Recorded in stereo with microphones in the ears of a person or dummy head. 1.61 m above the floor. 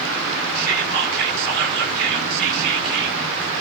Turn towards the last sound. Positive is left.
turn(degrees=-65)  # may be behind; listen again after turning